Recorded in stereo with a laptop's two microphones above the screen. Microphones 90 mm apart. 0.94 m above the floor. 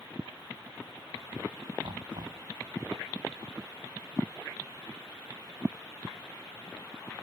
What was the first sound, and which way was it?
Knocking, 65° right (ahead or behind).